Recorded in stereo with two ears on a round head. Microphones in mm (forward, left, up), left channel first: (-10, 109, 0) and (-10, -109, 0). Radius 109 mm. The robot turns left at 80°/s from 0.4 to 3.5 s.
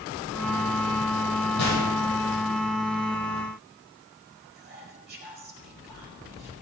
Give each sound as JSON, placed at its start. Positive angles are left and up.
{"t": 1.6, "sound": "a gunshot", "side_deg": 80, "distance_m": 8.5}
{"t": 4.5, "sound": "whispering", "side_deg": -45, "distance_m": 5.0}